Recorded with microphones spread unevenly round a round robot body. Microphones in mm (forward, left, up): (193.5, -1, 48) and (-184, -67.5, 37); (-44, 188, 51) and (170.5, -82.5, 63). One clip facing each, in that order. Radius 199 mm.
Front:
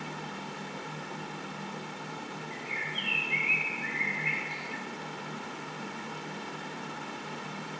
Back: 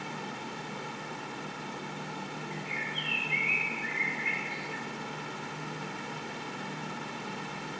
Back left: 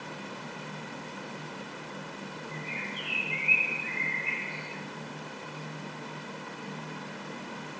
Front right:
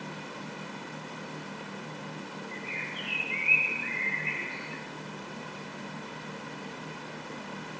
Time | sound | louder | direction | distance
2.5 | a bird | back 1 dB, back left 1 dB | 10° left | 3.5 m